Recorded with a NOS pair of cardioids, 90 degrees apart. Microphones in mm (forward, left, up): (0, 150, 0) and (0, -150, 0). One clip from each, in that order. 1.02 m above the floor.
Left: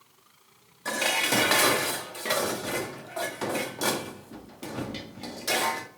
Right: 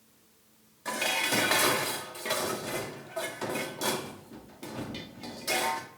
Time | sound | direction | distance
0.8 | dishes clattering | 20° left | 1.2 m